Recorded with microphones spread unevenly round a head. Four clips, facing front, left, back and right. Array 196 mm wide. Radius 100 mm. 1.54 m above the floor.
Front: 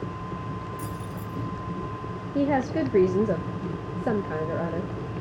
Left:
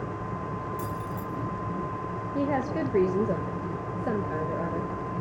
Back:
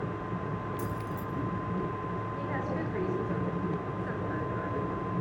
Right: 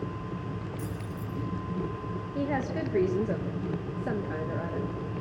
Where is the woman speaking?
15° left, 2.0 m.